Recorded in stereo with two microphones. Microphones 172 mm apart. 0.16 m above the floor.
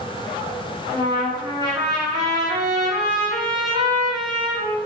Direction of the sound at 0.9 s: 25° right (ahead or behind).